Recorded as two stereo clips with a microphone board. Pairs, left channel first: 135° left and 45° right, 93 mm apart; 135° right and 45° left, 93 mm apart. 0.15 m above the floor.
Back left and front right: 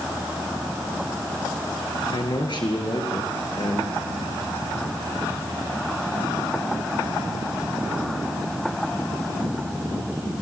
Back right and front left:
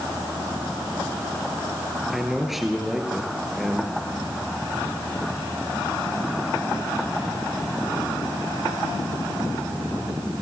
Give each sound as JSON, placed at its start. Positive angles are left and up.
{"t": 2.1, "sound": "a man speaking", "azimuth_deg": 130, "distance_m": 2.5}